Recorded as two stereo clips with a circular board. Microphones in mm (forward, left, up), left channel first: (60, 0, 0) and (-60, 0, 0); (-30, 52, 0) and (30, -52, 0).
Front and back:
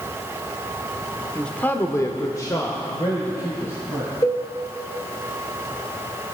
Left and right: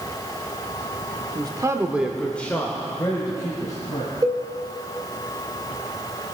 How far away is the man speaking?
About 1.0 m.